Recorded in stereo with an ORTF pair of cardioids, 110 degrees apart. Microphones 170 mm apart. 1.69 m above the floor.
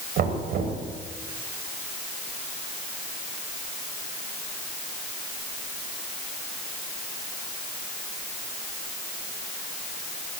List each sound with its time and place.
0.2 s knocking: 65° right, 8 m